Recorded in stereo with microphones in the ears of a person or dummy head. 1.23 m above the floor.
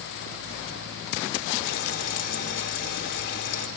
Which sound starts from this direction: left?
Frying, at 1.6 s.